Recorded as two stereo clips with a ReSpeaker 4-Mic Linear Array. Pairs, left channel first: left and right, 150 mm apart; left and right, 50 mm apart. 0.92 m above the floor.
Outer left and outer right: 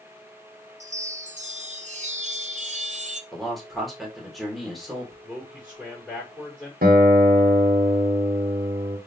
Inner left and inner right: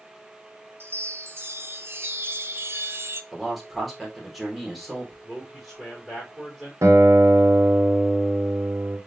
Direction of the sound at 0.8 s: 50° right (ahead or behind).